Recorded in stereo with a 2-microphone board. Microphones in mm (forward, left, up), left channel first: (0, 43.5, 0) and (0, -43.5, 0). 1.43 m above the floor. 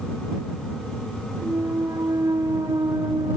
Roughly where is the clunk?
Right.